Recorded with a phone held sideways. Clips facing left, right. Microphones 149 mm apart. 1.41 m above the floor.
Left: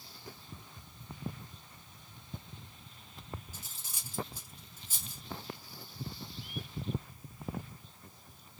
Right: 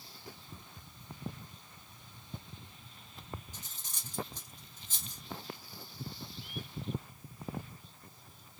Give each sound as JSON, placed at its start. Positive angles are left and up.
{"t": 3.5, "sound": "cutlery clinking", "side_deg": 10, "distance_m": 1.4}